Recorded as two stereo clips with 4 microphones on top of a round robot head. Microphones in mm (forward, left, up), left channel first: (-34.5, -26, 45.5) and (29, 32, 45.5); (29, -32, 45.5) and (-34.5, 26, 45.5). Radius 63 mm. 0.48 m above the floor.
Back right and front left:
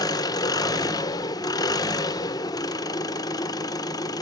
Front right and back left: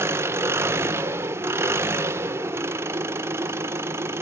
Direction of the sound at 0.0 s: 170° right.